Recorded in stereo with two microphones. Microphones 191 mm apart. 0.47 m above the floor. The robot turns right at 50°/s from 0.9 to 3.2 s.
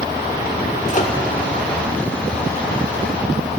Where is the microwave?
40° left (ahead or behind), 0.8 m.